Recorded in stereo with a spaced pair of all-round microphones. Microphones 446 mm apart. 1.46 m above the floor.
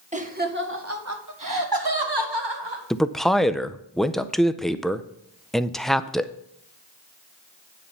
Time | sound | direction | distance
0.1 | laughter | 15° right (ahead or behind) | 1.7 m
2.9 | a man speaking | centre (ahead or behind) | 0.5 m